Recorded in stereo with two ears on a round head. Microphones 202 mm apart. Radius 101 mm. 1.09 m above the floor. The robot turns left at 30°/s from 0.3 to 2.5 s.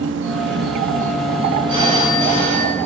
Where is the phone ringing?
25° right (ahead or behind), 4 m; by 2.8 s 45° right (ahead or behind), 4 m.